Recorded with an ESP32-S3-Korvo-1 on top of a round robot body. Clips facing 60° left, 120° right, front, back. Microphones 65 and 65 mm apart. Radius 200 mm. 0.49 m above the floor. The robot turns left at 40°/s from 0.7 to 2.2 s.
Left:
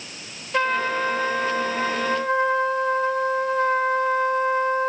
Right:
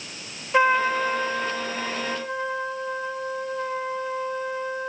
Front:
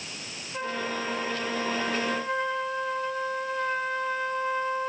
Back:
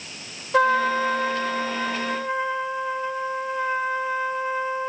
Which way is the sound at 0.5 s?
160° left.